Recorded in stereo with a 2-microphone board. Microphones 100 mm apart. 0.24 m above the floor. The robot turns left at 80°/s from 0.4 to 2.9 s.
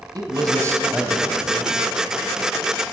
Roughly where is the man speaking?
Behind right.